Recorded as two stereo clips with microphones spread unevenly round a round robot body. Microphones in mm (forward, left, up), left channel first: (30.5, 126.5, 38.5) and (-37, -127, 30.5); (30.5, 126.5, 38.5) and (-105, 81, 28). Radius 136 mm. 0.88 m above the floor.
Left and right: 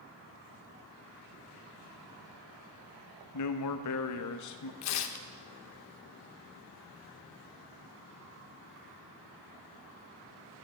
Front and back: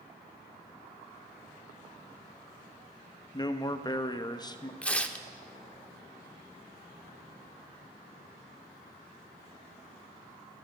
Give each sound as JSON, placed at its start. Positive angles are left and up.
{"t": 3.3, "sound": "a man speaking", "azimuth_deg": 80, "distance_m": 0.9}
{"t": 4.8, "sound": "tearing paper", "azimuth_deg": 100, "distance_m": 0.8}